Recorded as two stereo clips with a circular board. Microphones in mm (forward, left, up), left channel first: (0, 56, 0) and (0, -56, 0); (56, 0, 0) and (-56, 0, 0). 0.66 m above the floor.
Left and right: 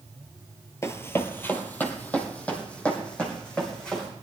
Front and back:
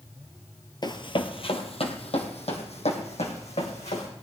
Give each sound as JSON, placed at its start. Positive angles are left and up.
{"t": 0.8, "sound": "running footsteps", "azimuth_deg": 35, "distance_m": 0.9}